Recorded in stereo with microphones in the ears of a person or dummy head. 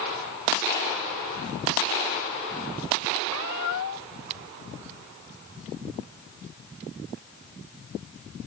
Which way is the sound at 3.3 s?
80° left.